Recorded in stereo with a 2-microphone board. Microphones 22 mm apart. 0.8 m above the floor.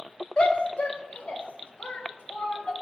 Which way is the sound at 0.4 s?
70° left (ahead or behind).